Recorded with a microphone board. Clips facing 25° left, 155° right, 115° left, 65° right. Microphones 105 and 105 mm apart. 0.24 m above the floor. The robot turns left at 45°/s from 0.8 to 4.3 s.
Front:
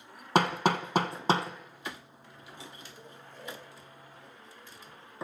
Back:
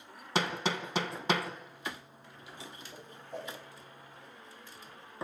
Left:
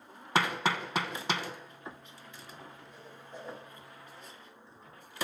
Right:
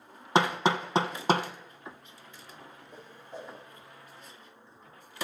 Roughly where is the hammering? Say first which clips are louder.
Front 7 dB, right 5 dB; ahead.